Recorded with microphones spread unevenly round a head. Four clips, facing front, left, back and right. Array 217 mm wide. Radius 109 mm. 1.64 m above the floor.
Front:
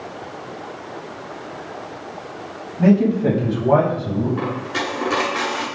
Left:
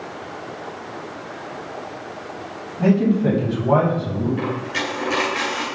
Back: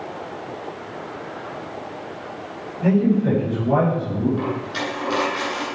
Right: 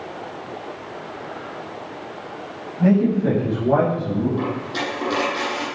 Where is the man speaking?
20° left, 9.5 m.